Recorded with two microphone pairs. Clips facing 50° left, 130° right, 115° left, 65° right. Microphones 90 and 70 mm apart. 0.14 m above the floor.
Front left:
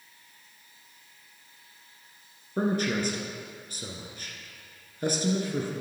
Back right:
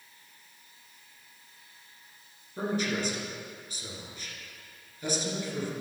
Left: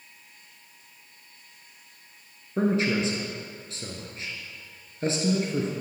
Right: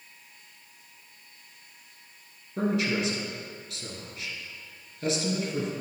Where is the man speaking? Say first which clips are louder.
Front left 4 dB, left 3 dB; 65° left, 1.6 m.